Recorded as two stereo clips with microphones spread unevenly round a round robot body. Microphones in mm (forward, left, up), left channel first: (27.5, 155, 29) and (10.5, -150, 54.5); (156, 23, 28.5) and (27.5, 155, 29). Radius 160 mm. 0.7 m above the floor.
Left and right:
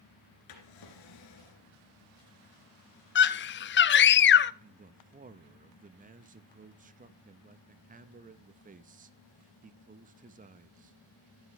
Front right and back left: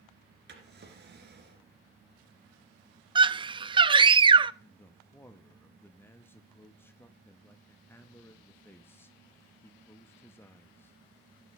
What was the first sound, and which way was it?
A drawer, 110° left.